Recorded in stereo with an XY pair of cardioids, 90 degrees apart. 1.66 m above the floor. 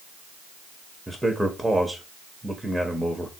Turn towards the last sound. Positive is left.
turn(degrees=-10)